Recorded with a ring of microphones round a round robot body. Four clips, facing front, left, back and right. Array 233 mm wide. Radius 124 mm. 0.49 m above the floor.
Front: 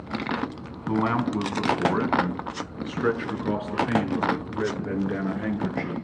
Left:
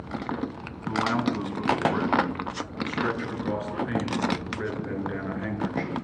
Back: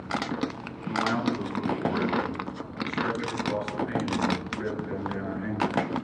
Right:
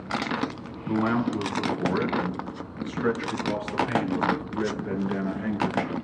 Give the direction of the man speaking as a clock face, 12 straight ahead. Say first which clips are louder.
Right 1 dB, front 3 dB; 12 o'clock.